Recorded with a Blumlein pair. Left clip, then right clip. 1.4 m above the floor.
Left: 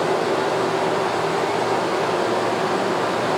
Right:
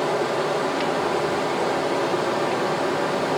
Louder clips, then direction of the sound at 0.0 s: Left 2 dB; 10° left.